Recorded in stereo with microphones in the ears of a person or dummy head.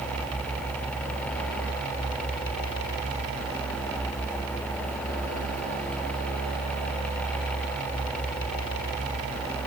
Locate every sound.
Only background noise.